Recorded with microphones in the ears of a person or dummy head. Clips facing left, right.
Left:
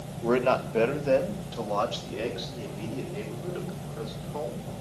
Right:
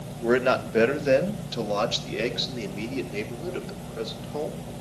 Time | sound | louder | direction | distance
0.2 | a man speaking | right 2 dB | 10° right (ahead or behind) | 1.5 m